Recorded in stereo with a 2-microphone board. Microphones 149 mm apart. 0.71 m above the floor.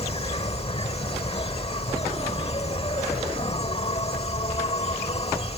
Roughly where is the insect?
Left.